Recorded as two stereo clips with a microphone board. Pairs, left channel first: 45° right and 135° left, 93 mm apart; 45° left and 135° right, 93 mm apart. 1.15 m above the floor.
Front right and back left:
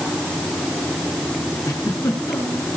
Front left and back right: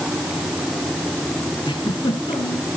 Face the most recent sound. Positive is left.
turn(degrees=10)